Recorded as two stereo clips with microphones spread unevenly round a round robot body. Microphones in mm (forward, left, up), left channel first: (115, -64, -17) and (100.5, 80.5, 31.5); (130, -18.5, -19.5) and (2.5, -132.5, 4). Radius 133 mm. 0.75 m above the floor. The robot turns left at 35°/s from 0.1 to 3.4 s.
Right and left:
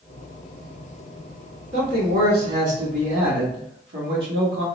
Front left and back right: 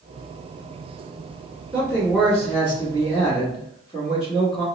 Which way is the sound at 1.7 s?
150° left.